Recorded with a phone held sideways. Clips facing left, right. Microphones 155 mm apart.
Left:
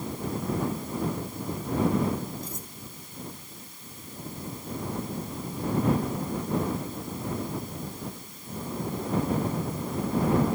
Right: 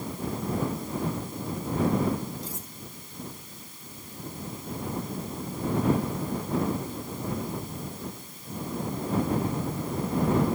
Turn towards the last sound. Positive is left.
turn(degrees=-80)